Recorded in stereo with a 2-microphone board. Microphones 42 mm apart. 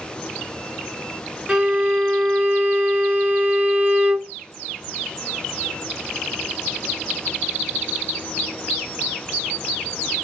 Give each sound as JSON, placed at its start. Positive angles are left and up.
{"t": 1.5, "sound": "a violin", "side_deg": -20, "distance_m": 1.8}